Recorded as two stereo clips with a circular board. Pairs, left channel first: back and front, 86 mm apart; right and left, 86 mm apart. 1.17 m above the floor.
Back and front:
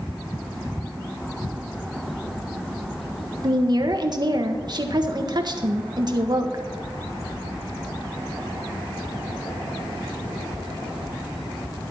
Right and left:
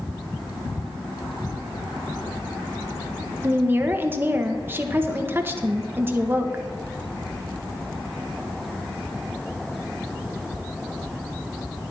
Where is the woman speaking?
25° left, 1.4 m.